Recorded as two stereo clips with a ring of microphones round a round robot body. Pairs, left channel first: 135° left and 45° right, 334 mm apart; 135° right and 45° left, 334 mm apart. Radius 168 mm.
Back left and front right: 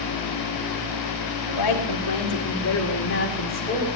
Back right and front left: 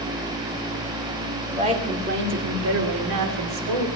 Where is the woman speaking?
120° left, 3 m; by 3.9 s 65° left, 3.5 m.